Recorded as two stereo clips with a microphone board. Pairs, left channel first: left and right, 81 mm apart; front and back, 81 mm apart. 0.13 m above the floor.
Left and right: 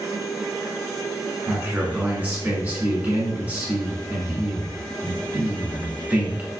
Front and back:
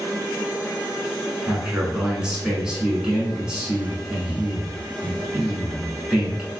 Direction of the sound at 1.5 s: 125° right.